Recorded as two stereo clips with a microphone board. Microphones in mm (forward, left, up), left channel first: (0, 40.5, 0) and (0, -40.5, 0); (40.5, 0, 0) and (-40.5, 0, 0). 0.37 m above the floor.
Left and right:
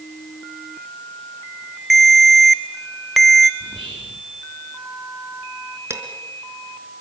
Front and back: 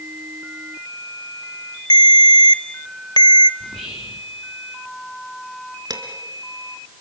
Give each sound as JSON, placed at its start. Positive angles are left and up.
{"t": 1.9, "sound": "a ringtone", "azimuth_deg": 0, "distance_m": 0.7}
{"t": 3.6, "sound": "whispering", "azimuth_deg": -85, "distance_m": 4.0}
{"t": 5.9, "sound": "dishes clattering", "azimuth_deg": -145, "distance_m": 3.0}